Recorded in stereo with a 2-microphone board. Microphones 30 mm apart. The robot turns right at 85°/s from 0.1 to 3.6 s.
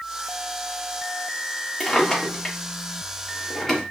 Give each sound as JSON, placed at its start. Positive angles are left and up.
{"t": 1.8, "sound": "a drawer", "side_deg": 5, "distance_m": 1.2}